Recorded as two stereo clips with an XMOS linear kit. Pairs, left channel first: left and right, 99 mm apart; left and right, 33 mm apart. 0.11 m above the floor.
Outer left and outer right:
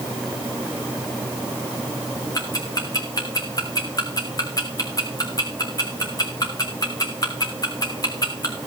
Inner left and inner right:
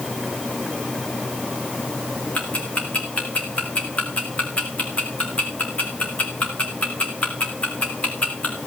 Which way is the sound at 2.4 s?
40° left (ahead or behind).